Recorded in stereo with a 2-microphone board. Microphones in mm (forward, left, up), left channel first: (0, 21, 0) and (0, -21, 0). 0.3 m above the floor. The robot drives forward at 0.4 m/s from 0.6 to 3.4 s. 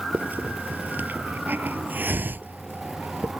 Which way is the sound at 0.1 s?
50° right (ahead or behind).